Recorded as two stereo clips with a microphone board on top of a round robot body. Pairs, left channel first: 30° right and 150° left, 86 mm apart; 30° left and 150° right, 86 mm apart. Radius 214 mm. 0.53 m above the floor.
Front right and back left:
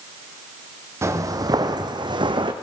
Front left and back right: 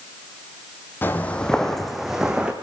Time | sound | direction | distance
1.0 | footsteps | 95° left | 1.6 m